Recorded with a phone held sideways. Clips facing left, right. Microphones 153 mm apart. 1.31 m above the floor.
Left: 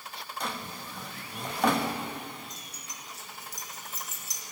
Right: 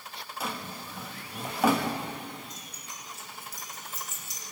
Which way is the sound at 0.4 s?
5° right (ahead or behind).